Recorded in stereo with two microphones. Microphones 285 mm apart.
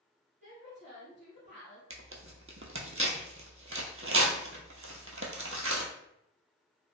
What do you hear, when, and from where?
0.4 s a woman speaking: 40° left (ahead or behind), 2.0 m
1.9 s tearing paper: 50° right (ahead or behind), 0.5 m